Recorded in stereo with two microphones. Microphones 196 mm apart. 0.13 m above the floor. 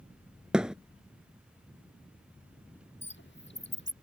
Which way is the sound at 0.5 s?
5° right (ahead or behind).